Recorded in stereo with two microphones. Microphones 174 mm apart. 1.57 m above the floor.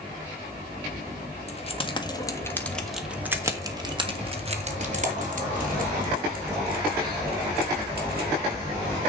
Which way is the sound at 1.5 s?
40° left (ahead or behind).